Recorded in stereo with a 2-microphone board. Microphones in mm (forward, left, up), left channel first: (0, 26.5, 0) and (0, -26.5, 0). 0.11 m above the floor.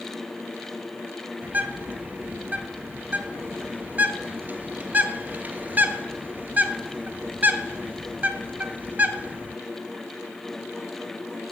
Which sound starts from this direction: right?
A bird, at 1.4 s.